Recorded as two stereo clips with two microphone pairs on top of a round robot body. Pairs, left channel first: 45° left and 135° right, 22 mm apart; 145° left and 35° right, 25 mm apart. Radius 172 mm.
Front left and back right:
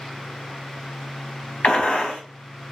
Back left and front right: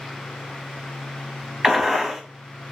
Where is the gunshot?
20° left, 0.9 m.